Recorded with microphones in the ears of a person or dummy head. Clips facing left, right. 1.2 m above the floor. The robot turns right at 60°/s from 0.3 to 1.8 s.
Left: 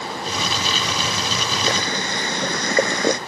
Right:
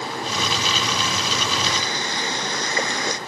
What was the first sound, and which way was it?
Boiling, 65° left (ahead or behind).